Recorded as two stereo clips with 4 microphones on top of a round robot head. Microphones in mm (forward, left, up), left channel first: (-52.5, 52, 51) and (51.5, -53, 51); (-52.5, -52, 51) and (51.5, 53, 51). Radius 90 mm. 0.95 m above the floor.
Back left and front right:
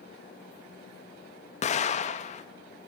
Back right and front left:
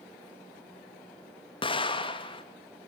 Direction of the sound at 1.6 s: 170° left.